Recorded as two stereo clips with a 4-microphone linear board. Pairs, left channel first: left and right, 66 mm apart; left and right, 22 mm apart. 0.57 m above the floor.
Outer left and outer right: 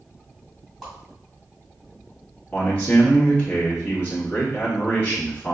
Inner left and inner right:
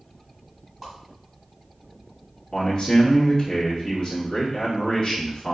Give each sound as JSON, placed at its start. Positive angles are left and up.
{"t": 0.8, "sound": "a whoosh", "side_deg": 0, "distance_m": 2.0}
{"t": 2.5, "sound": "a man speaking", "side_deg": 25, "distance_m": 1.3}